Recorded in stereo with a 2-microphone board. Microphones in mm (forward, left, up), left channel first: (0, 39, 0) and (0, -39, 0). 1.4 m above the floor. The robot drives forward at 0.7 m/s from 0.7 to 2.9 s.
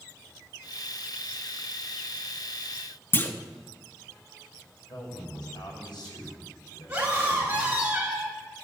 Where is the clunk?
25° left (ahead or behind), 0.9 m.